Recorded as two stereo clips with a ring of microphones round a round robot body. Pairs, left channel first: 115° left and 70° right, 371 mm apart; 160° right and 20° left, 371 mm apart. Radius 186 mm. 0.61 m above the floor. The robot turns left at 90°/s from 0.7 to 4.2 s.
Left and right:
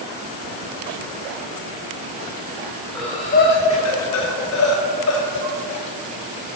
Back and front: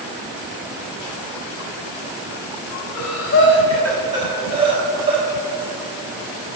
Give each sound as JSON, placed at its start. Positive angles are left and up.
{"t": 3.0, "sound": "breathing", "azimuth_deg": -155, "distance_m": 1.1}